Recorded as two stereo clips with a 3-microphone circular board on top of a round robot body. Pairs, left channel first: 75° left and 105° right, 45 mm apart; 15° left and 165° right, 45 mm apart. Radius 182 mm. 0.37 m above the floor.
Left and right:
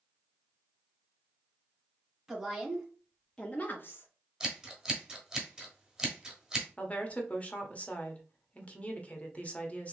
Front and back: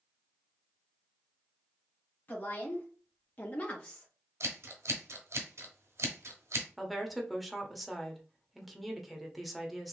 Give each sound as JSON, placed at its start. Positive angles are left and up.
{"t": 2.3, "sound": "a woman speaking", "azimuth_deg": -35, "distance_m": 2.5}
{"t": 4.4, "sound": "scissors", "azimuth_deg": 180, "distance_m": 1.4}
{"t": 6.8, "sound": "a woman speaking", "azimuth_deg": 105, "distance_m": 1.3}